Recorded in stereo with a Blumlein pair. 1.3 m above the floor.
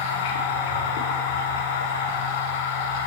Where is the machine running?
55° left, 1.4 m.